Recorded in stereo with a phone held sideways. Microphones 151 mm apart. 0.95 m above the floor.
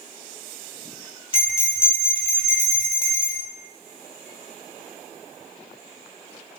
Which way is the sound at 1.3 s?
40° left (ahead or behind).